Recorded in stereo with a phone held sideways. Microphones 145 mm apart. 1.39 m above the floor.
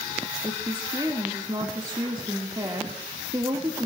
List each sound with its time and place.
0.4 s a woman speaking: 30° right (ahead or behind), 1.9 m